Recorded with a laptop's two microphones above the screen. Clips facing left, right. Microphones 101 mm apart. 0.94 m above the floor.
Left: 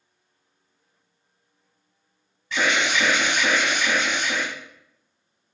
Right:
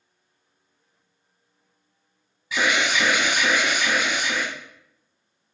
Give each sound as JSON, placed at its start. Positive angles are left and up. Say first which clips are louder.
{"t": 2.5, "sound": "an alarm", "louder": "even", "side_deg": -10, "distance_m": 0.8}